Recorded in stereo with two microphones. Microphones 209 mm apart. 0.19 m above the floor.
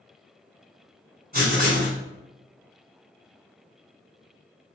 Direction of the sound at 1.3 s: 45° right (ahead or behind).